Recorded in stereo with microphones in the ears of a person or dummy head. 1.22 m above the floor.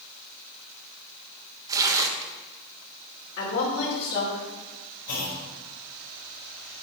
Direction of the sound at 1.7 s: 25° right (ahead or behind).